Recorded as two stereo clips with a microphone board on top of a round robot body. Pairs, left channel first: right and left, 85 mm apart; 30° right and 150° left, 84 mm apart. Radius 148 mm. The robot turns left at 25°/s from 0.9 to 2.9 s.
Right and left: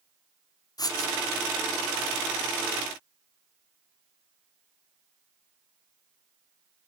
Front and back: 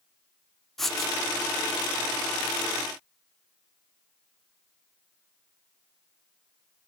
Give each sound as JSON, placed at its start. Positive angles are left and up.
{"t": 0.8, "sound": "writing", "azimuth_deg": -115, "distance_m": 0.6}